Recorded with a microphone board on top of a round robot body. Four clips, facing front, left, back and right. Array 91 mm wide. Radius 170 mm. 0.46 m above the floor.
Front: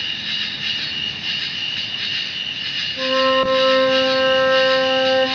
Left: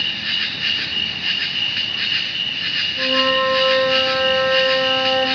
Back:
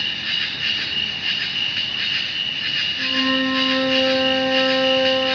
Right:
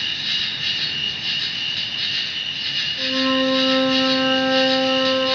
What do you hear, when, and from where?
0.0 s an insect: 120° left, 1.1 m
3.0 s a flute: 25° left, 0.6 m